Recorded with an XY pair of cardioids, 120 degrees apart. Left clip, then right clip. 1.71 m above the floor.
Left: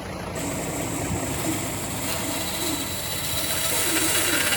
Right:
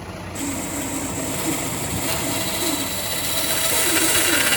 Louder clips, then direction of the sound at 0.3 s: Right 2 dB; 25° right.